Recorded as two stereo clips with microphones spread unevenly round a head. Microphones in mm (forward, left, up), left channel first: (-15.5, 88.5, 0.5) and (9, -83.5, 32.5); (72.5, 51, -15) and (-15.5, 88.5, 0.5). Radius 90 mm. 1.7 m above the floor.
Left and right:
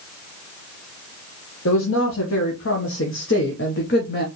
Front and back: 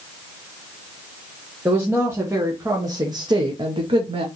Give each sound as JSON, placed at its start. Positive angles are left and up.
{"t": 1.6, "sound": "a woman speaking", "azimuth_deg": 85, "distance_m": 1.6}